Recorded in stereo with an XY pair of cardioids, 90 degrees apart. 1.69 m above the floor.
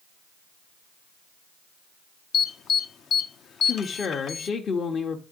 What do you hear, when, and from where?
2.3 s an alarm: 70° left, 0.7 m
3.6 s a woman speaking: 60° left, 1.1 m